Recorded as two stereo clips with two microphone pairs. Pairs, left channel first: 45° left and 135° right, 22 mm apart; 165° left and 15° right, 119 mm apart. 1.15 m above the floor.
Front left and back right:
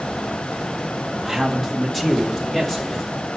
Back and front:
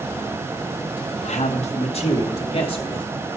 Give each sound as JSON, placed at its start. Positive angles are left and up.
{"t": 1.2, "sound": "a man speaking", "azimuth_deg": 145, "distance_m": 1.1}